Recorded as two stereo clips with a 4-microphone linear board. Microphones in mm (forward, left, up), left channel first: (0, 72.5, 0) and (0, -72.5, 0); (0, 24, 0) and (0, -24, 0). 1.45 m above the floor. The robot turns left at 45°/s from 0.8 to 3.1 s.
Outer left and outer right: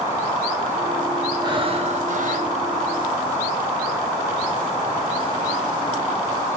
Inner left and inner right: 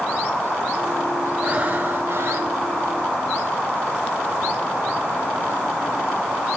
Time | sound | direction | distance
1.4 | breathing | 30° right | 1.4 m